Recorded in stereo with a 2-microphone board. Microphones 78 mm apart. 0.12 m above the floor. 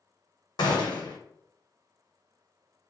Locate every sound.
0.6 s a gunshot: 70° left (ahead or behind), 1.0 m